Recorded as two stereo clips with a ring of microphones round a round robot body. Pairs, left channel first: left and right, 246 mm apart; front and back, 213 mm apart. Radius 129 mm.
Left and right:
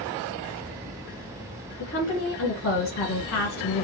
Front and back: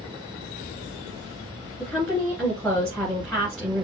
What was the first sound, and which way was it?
A woman speaking, 85° left.